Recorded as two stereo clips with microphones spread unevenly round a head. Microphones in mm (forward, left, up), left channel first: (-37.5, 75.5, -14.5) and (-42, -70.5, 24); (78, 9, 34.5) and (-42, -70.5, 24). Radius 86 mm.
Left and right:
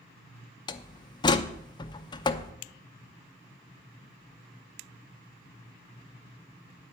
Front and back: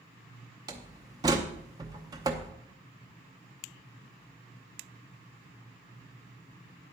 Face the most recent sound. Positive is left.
turn(degrees=145)